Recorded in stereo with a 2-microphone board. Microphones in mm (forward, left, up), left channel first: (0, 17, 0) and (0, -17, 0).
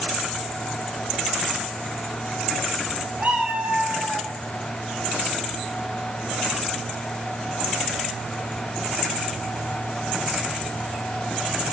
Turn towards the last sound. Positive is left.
turn(degrees=-50)  # may be behind; listen again after turning